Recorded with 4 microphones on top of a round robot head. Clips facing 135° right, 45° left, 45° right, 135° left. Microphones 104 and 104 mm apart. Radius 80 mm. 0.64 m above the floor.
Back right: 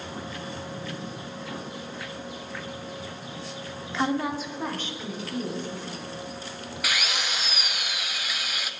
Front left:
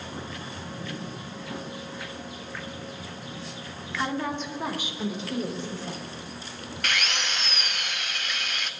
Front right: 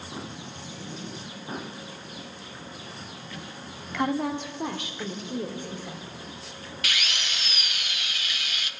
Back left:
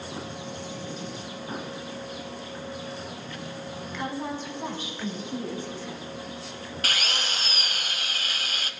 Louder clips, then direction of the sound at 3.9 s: Back right 3 dB, front right 6 dB; 70° right.